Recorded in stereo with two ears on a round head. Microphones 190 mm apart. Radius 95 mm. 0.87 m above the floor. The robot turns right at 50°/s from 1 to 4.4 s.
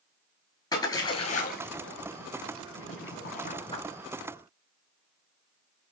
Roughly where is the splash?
Centre.